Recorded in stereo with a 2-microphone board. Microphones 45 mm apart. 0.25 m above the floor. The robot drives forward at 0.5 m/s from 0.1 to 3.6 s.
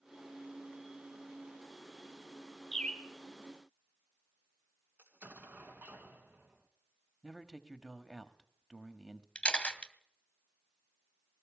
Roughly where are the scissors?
I don't hear scissors.